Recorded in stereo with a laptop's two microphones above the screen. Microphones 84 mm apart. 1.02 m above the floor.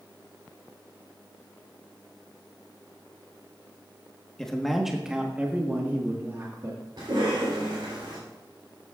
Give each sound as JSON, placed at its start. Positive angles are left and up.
{"t": 4.4, "sound": "a man speaking", "side_deg": 5, "distance_m": 1.2}
{"t": 7.0, "sound": "a cough", "side_deg": -60, "distance_m": 3.5}